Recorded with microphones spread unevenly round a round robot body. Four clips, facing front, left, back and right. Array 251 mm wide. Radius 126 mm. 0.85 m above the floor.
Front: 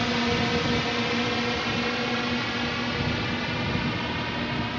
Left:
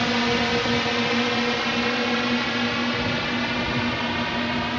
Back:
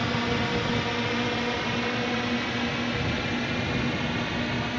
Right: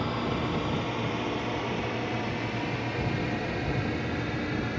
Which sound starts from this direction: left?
A drone, at 0.0 s.